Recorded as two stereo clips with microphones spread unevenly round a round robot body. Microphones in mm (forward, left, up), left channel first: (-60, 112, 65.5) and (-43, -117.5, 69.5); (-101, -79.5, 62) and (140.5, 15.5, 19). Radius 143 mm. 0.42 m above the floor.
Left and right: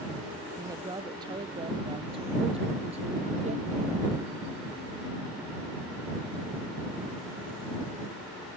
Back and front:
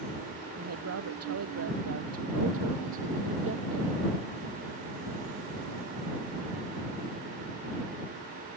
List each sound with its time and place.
0.6 s a woman speaking: 10° right; by 4.0 s 25° right